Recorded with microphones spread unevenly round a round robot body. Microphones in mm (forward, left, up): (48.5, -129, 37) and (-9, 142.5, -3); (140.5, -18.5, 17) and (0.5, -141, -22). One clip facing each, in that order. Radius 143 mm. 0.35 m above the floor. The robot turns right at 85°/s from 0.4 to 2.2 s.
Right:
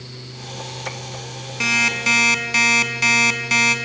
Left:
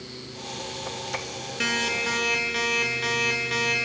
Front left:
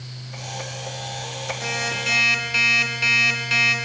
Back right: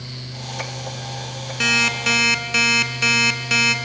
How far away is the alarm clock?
About 1.5 m.